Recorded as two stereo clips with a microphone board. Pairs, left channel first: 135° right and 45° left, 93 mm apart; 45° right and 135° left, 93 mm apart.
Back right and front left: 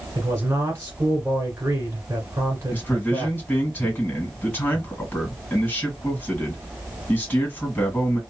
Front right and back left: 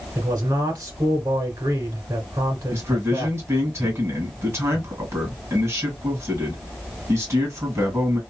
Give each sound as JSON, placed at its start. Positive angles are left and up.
{"t": 0.1, "sound": "a man speaking", "azimuth_deg": 105, "distance_m": 1.8}
{"t": 2.7, "sound": "a man speaking", "azimuth_deg": 165, "distance_m": 1.9}